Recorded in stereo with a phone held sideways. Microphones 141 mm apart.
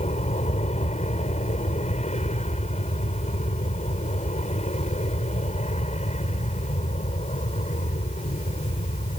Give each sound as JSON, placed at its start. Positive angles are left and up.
{"t": 0.0, "sound": "an aircraft", "side_deg": 50}